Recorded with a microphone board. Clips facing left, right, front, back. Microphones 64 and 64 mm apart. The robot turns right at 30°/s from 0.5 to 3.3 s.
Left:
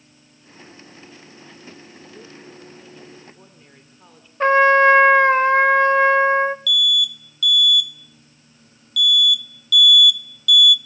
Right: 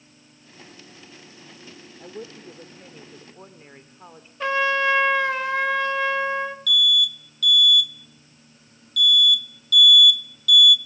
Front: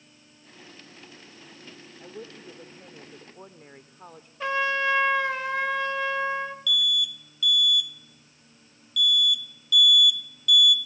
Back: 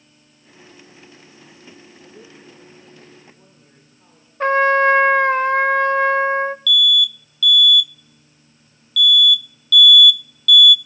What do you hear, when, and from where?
2.0 s a woman speaking: 65° right, 3 m; by 4.3 s 30° right, 3 m
4.4 s a trumpet: 140° left, 0.7 m
6.7 s an alarm: 65° right, 0.7 m